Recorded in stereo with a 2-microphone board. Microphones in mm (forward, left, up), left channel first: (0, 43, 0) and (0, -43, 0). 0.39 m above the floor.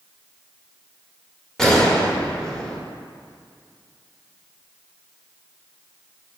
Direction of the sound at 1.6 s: 5° left (ahead or behind).